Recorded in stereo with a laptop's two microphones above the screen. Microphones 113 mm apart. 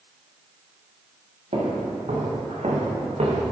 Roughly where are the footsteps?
Right.